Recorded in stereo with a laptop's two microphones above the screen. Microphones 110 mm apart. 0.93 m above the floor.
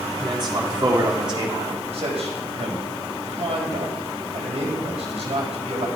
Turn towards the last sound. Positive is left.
turn(degrees=-70)  # may be behind; listen again after turning